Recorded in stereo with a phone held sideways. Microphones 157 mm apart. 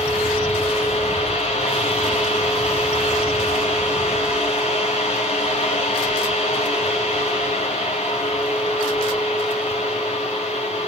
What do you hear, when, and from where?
0.0 s a fan: 45° left (ahead or behind), 4.5 m